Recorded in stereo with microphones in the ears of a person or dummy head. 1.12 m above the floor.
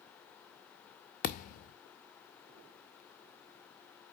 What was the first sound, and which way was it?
A thud, 40° left (ahead or behind).